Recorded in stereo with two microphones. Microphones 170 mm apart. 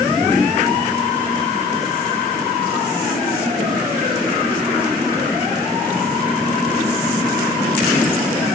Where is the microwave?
No microwave in this recording.